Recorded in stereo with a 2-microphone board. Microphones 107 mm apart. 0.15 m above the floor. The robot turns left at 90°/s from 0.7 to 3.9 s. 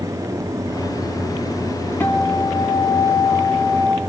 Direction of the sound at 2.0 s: 165° left.